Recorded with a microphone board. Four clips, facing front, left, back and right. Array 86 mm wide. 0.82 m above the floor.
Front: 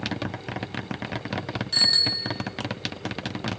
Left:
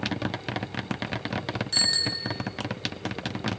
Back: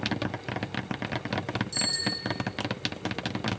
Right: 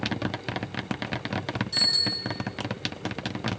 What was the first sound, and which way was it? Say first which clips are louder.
A bicycle bell: left 1 dB, front 1 dB; 40° left.